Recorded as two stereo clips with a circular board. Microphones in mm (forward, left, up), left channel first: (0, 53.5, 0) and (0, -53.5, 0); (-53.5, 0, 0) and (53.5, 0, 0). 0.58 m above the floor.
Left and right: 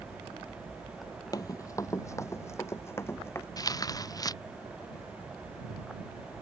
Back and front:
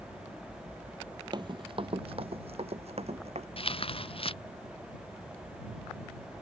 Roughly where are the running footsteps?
Ahead left.